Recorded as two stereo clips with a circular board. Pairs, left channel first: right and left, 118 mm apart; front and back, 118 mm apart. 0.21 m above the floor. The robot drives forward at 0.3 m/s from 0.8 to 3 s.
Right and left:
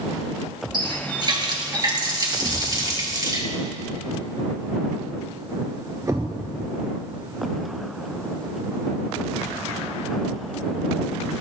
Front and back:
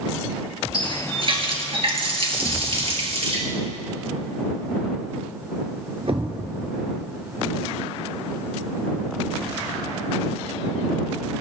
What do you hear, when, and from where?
0.7 s a running tap: 135° left, 2.5 m; by 3.4 s 145° left, 3 m
2.4 s a thud: 145° left, 1.3 m; by 6.5 s 150° left, 1.5 m